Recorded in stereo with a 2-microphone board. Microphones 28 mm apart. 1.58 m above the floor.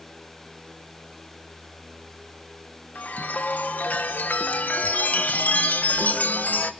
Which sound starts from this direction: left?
A chime, at 3.0 s.